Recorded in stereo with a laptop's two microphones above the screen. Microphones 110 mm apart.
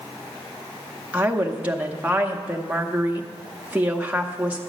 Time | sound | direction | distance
1.1 | a woman speaking | 10° right (ahead or behind) | 0.9 m